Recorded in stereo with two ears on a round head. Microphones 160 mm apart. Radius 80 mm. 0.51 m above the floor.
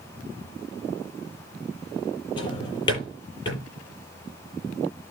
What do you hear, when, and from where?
2.4 s a drawer: 30° left (ahead or behind), 9.5 m